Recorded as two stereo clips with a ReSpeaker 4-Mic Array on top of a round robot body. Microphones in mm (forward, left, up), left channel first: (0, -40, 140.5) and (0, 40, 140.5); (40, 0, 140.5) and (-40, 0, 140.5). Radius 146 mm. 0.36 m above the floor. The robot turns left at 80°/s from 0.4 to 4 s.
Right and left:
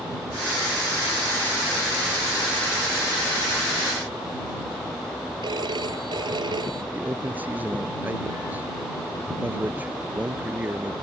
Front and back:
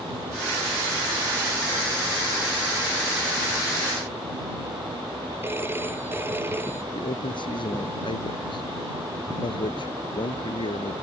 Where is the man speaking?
20° left.